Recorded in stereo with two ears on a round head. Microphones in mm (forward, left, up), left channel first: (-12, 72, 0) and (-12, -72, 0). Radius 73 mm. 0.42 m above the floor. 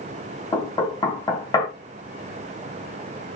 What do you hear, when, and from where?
0.5 s knocking: 25° left (ahead or behind), 3 m